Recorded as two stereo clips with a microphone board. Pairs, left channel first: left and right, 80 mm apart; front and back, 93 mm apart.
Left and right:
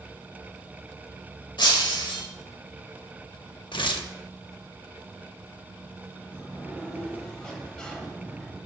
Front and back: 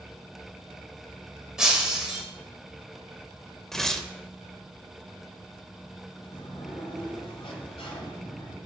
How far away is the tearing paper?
About 0.6 m.